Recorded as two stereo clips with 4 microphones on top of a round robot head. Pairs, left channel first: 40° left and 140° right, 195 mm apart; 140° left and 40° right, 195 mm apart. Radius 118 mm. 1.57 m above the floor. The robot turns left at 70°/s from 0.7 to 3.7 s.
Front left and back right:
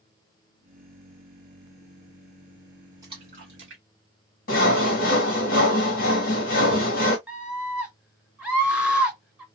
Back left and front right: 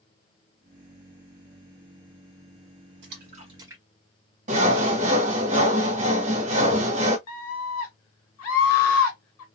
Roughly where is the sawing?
Ahead.